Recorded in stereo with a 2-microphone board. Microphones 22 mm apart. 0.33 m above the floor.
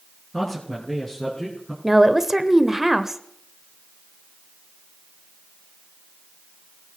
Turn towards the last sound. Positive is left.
turn(degrees=-15)  # may be behind; listen again after turning